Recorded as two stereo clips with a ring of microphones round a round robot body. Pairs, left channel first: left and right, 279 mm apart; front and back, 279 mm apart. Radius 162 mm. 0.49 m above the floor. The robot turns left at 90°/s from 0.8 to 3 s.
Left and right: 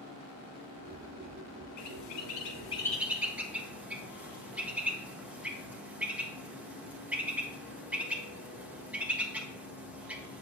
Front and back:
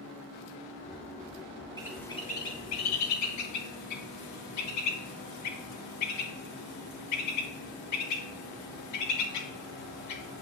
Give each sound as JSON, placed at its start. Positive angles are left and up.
{"t": 1.8, "sound": "a bird", "azimuth_deg": 105, "distance_m": 1.5}